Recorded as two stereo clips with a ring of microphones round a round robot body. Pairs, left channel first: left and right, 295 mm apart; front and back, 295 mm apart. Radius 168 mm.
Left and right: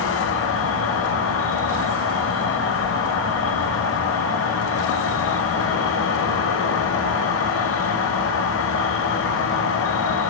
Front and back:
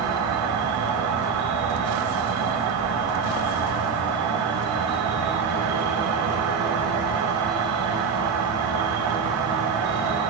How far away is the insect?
About 0.8 m.